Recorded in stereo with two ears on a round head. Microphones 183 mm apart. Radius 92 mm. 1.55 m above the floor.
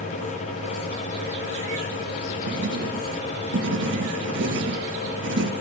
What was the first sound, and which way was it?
Writing, 60° right (ahead or behind).